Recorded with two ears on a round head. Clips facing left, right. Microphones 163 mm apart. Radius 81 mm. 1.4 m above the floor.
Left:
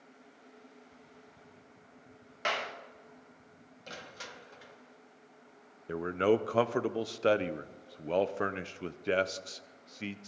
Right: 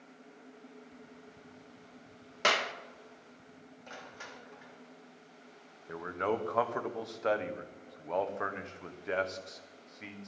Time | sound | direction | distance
2.4 | a clap | 65° right (ahead or behind) | 1.1 m
3.9 | crushing | 45° left (ahead or behind) | 1.1 m
5.9 | a man speaking | 40° left (ahead or behind) | 0.7 m